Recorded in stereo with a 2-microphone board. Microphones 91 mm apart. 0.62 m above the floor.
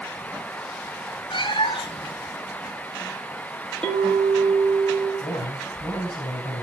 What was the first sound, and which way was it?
A cat meowing, 60° left (ahead or behind).